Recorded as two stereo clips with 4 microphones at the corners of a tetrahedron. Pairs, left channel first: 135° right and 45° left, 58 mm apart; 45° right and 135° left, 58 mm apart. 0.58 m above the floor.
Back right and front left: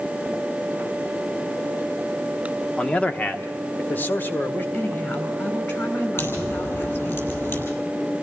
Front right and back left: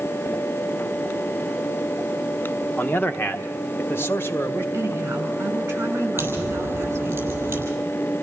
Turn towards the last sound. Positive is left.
turn(degrees=-175)